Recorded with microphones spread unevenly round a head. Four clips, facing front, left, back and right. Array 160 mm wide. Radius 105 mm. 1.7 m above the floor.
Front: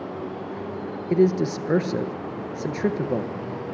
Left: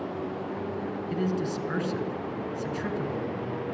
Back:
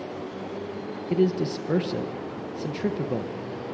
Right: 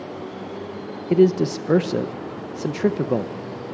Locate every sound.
1.1 s a man speaking: 80° right, 1.5 m